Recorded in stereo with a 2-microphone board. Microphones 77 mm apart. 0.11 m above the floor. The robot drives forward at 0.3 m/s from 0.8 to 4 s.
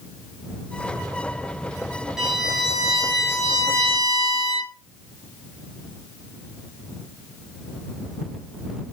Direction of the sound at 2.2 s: 5° right (ahead or behind).